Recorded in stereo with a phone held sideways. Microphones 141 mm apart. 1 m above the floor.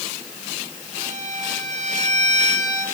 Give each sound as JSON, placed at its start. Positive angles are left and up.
{"t": 0.9, "sound": "a violin", "side_deg": -60, "distance_m": 6.5}